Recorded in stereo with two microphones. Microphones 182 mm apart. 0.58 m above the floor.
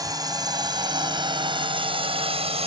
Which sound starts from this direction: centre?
A drone, at 0.0 s.